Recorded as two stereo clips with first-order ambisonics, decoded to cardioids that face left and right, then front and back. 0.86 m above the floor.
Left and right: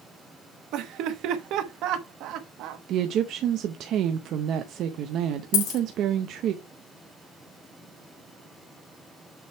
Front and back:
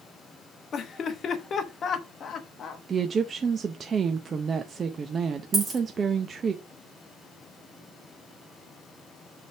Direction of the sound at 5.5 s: 105° left.